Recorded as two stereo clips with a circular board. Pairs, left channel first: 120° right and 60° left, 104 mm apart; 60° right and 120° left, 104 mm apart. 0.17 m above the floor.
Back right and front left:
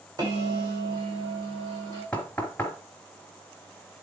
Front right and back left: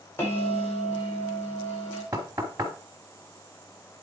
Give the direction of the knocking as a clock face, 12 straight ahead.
6 o'clock.